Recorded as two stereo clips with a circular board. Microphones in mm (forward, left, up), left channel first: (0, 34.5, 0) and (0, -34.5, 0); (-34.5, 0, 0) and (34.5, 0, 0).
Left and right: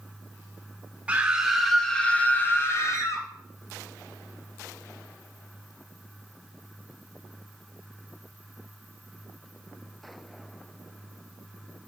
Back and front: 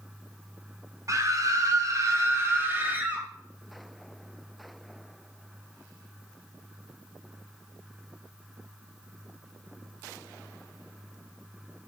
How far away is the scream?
About 1.9 m.